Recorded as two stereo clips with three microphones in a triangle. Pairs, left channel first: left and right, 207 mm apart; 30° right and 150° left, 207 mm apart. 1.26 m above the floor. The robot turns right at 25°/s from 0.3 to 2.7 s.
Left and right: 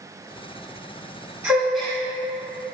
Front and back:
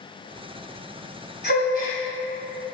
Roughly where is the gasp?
Ahead.